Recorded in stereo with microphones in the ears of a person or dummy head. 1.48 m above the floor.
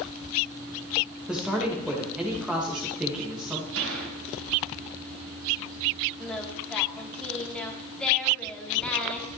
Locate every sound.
1.3 s a man speaking: 10° right (ahead or behind), 2 m
3.8 s a gunshot: 70° right (ahead or behind), 3 m
6.2 s singing: 5° left (ahead or behind), 1.5 m